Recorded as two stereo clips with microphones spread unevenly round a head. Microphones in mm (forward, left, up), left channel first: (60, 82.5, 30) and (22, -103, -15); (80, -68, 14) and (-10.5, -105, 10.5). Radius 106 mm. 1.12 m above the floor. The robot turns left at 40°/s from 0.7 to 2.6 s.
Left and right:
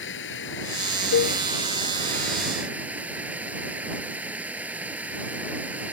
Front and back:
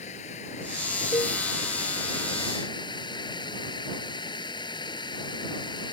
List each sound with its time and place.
0.0 s running water: 55° left; by 5.9 s 20° right
1.1 s a cowbell: 85° left; by 1.4 s 75° left